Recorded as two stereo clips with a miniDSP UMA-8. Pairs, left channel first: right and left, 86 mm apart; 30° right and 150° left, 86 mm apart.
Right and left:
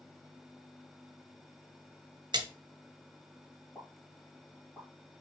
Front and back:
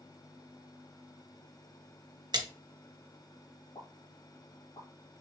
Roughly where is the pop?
Ahead.